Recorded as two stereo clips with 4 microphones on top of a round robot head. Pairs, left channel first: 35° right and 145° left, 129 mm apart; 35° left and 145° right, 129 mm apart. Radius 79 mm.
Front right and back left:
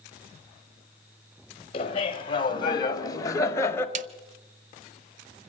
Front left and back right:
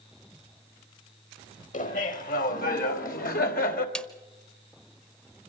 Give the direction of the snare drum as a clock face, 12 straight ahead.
8 o'clock.